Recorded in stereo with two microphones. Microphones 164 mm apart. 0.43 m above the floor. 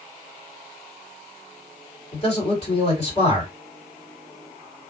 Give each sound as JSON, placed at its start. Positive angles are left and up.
{"t": 2.1, "sound": "a man speaking", "side_deg": 40, "distance_m": 1.8}